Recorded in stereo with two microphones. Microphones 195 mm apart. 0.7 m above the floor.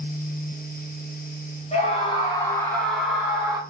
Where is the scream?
35° left (ahead or behind), 1.4 m; by 3.6 s 15° right (ahead or behind), 1.3 m.